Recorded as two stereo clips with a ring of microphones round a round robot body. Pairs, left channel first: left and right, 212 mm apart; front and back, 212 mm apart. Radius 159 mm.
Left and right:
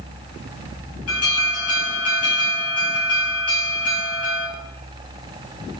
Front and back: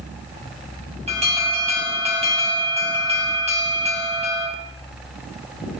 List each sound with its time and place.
1.1 s an alarm: 120° left, 7.5 m